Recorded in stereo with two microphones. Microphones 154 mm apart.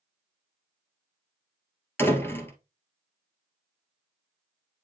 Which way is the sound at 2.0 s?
15° left (ahead or behind).